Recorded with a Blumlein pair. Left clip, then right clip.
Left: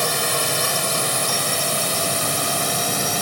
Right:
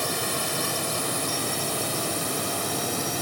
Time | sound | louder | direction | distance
0.0 | a drone | left 6 dB | 20° left | ?